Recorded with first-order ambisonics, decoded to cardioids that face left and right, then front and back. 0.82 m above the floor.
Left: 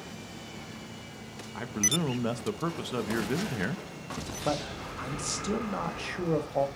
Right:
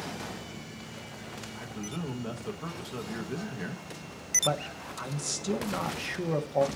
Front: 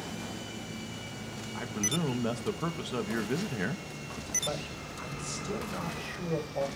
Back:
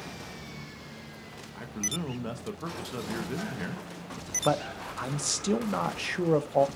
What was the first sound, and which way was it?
A man speaking, 65° left.